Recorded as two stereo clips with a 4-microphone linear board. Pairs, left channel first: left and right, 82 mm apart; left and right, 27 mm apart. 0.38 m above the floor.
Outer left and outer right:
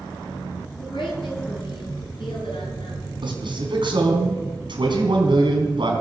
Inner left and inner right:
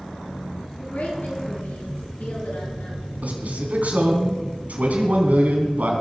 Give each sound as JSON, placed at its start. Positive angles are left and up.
{"t": 0.8, "sound": "a woman speaking", "side_deg": 75, "distance_m": 4.0}
{"t": 3.2, "sound": "a man speaking", "side_deg": -70, "distance_m": 3.5}